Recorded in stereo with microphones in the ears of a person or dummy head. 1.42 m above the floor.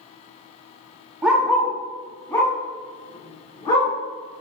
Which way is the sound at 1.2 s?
10° right (ahead or behind).